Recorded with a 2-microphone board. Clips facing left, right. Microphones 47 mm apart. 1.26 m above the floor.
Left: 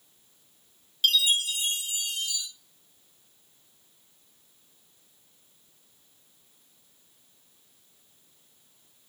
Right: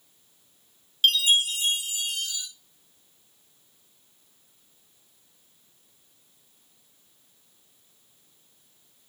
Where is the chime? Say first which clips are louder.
Right 3 dB; 45° right (ahead or behind), 1.7 m.